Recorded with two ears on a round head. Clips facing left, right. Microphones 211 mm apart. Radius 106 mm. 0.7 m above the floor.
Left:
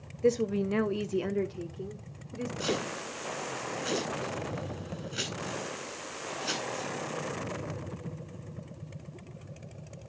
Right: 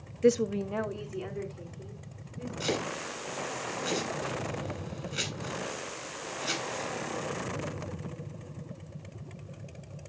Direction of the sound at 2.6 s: Centre (ahead or behind).